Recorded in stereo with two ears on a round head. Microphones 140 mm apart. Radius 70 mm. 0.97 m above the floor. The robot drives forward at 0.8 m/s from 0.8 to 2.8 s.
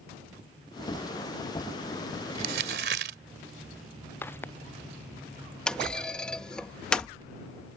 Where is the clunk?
5° left (ahead or behind).